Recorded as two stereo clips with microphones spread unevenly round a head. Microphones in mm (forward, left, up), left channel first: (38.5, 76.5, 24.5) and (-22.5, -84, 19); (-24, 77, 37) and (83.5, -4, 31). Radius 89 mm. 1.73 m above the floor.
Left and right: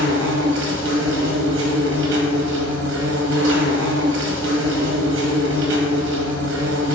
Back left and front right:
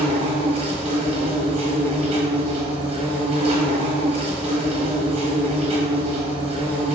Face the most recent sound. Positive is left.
turn(degrees=-95)